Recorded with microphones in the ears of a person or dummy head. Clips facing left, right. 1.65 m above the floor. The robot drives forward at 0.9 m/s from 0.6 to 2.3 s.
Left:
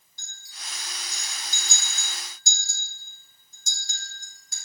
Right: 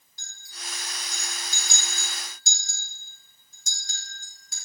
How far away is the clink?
About 1.9 m.